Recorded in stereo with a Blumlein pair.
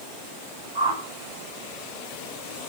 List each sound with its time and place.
0.8 s a whoosh: 55° right, 6 m